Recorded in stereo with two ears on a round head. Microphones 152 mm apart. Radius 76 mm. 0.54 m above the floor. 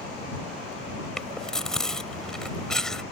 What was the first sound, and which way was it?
Chewing, 5° left (ahead or behind).